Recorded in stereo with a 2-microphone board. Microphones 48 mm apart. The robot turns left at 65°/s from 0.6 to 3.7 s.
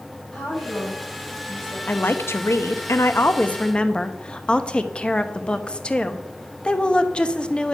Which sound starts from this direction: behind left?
A woman speaking, at 1.9 s.